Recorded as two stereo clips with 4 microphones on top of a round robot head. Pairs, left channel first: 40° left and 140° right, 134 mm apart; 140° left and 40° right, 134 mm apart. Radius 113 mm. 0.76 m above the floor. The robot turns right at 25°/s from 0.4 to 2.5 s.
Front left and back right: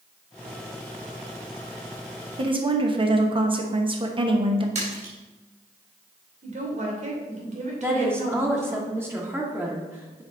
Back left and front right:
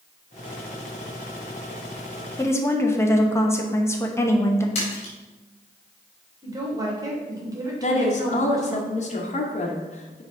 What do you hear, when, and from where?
2.4 s a woman speaking: 165° right, 1.1 m; by 4.7 s 160° right, 1.1 m
4.8 s a splash: straight behind, 3 m
6.4 s a woman speaking: 105° right, 2.5 m
7.8 s a woman speaking: 150° left, 1.3 m